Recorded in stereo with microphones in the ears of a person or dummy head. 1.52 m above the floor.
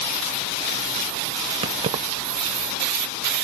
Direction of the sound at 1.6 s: 30° right (ahead or behind).